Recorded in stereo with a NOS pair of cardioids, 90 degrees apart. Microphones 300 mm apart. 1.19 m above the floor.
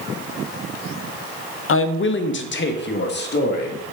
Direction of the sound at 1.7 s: 50° left.